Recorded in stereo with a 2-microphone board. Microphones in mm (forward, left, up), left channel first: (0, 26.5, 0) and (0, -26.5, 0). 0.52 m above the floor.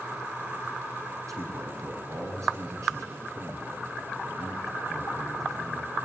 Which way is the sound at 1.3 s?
75° right (ahead or behind).